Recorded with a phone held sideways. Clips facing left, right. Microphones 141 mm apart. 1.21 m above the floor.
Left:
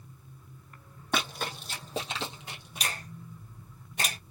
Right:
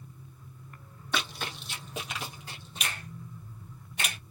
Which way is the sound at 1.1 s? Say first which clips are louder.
Left 2 dB; 50° left (ahead or behind).